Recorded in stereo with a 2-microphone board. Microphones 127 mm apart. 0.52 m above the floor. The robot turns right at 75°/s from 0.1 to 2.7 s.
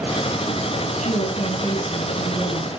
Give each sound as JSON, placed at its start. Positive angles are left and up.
{"t": 1.0, "sound": "a woman speaking", "azimuth_deg": 100, "distance_m": 6.0}